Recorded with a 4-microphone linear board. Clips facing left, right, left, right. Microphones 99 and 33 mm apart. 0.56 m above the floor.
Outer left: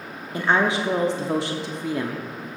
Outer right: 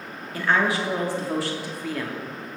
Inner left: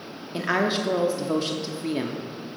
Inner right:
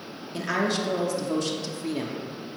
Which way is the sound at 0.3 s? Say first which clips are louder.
Outer left 2 dB, inner left 2 dB; 20° left (ahead or behind).